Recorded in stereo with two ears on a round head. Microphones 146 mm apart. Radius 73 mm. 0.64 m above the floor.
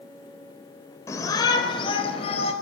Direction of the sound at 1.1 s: 20° left (ahead or behind).